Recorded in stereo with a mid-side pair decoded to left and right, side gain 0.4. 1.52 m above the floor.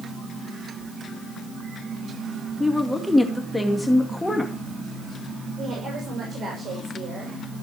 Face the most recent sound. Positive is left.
turn(degrees=-55)